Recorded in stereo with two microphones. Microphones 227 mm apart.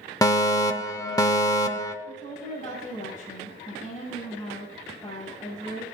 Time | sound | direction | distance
0.2 | a fire alarm | 15° left (ahead or behind) | 0.8 m
2.0 | a woman speaking | 20° left (ahead or behind) | 6.5 m